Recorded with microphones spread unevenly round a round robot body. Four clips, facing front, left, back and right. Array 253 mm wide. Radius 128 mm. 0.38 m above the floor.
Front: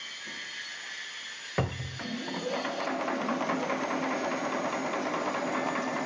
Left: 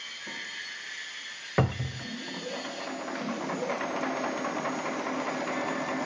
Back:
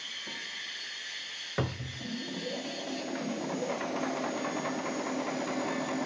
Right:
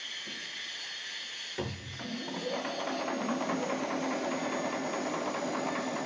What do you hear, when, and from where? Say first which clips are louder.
1.6 s a cupboard door: left 9 dB, front 2 dB; 85° left, 0.7 m